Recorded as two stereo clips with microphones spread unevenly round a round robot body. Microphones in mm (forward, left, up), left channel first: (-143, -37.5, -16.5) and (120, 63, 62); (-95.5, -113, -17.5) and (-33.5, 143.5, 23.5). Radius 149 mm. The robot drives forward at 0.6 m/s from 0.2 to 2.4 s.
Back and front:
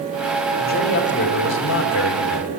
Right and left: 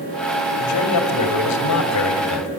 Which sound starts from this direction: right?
A man speaking, at 0.6 s.